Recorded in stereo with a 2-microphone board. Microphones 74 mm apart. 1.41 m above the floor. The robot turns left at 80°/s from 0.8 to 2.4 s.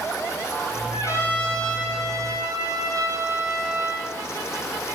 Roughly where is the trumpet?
Ahead left.